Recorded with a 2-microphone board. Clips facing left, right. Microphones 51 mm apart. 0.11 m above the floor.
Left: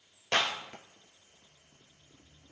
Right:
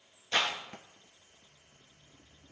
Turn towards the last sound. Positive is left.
turn(degrees=55)  # may be behind; listen again after turning